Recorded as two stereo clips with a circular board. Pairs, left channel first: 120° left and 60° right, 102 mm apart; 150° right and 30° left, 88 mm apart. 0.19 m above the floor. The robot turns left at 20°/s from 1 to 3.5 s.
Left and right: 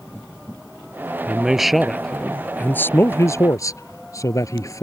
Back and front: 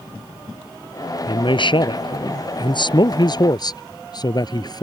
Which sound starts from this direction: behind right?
A man speaking, at 1.3 s.